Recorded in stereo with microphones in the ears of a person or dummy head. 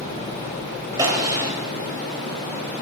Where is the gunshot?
15° right (ahead or behind), 1.5 m.